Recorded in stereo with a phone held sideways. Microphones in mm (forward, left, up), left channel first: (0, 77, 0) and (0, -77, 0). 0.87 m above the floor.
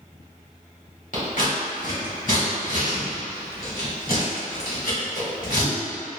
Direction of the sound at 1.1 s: 65° left (ahead or behind).